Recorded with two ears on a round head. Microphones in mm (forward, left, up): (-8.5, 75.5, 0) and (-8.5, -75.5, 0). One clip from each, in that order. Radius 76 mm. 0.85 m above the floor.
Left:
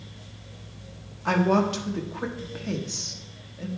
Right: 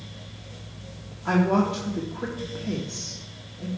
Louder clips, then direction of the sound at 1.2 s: Left 1 dB; 70° left (ahead or behind).